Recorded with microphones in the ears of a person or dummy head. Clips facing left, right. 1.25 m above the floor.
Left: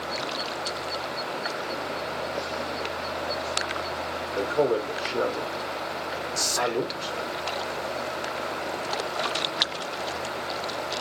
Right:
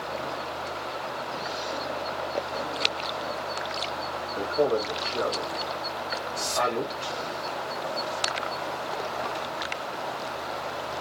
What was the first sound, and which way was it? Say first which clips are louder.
A man speaking: left 1 dB; 60° left (ahead or behind).